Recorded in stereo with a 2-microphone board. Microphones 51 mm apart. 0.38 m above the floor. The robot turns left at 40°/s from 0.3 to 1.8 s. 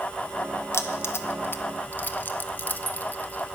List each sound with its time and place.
0.7 s keys jangling: 60° left (ahead or behind), 0.9 m; by 3.6 s 35° left (ahead or behind), 0.9 m